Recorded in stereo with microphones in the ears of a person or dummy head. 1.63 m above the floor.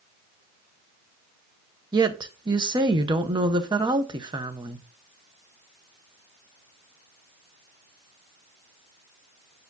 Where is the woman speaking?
25° right (ahead or behind), 1.0 m.